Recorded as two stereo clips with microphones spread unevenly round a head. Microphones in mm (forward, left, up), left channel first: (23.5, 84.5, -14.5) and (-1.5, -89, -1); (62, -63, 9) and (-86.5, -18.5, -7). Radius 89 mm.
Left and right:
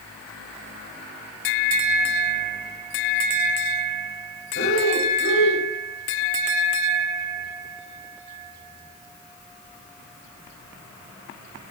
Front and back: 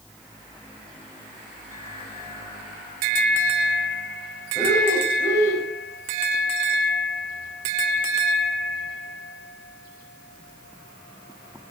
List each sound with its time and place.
4.5 s breathing: 60° left, 6.5 m